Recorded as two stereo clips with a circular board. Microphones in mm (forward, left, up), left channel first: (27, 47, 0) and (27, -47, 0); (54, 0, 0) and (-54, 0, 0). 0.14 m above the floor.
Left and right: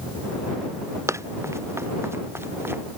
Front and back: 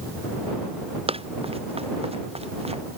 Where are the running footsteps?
150° right; by 2.8 s 155° right.